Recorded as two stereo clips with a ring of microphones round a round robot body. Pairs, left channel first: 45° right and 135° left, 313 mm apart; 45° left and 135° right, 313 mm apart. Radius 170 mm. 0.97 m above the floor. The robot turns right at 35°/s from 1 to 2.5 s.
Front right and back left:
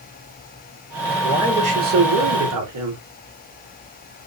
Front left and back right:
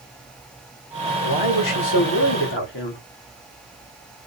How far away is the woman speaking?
About 1.9 m.